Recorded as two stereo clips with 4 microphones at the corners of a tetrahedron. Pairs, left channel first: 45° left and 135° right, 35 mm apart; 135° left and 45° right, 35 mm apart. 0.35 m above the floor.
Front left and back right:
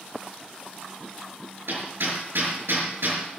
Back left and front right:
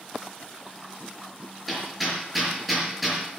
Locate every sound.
1.7 s hammering: 130° right, 5.5 m